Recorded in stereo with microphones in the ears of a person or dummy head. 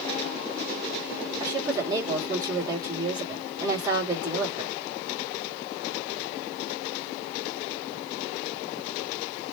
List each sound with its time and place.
1.4 s a woman speaking: 20° right (ahead or behind), 2.5 m